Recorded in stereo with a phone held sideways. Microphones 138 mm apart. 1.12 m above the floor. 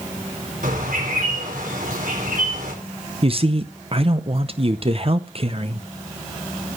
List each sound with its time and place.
0.6 s a bird: 85° right, 4 m
3.2 s a man speaking: 45° right (ahead or behind), 0.7 m